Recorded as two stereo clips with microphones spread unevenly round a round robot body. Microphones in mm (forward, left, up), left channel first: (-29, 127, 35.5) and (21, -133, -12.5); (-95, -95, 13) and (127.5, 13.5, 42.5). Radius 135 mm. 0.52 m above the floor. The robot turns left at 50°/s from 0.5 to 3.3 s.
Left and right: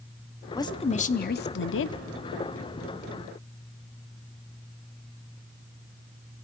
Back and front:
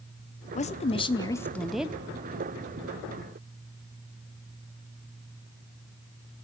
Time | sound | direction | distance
0.6 | a woman speaking | 175° right | 0.8 m